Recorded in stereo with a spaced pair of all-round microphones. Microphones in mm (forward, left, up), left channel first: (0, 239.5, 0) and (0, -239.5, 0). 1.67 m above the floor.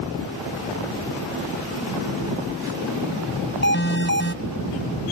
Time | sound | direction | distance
2.2 | a phone buzzing | 65° right (ahead or behind) | ?
3.6 | an alarm | 20° left (ahead or behind) | ?